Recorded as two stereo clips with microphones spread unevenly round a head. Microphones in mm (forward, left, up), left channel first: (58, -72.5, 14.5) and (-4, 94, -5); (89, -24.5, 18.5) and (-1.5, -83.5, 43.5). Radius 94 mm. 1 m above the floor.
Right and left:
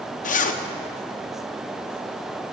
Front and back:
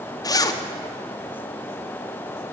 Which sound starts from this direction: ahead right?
A zipper, at 0.2 s.